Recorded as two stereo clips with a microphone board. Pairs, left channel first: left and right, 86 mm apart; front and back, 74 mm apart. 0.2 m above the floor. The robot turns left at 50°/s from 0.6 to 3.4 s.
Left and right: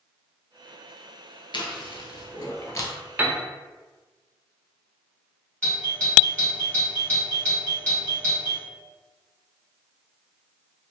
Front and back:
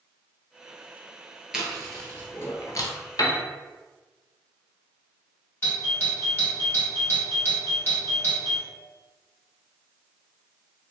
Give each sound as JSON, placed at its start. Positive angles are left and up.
{"t": 1.5, "sound": "chewing", "azimuth_deg": 100, "distance_m": 0.7}
{"t": 3.2, "sound": "a piano", "azimuth_deg": -25, "distance_m": 0.5}
{"t": 5.6, "sound": "a doorbell", "azimuth_deg": 30, "distance_m": 1.9}